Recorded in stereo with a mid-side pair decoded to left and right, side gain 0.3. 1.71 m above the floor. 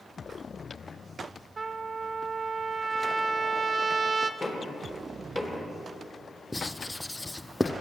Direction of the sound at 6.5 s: 15° left.